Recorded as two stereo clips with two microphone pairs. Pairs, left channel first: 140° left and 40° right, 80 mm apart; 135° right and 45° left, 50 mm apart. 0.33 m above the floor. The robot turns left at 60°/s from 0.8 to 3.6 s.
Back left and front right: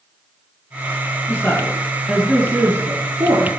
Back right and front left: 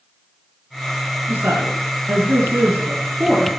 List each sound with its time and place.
1.3 s a woman speaking: 95° left, 4 m; by 3.5 s 40° right, 4 m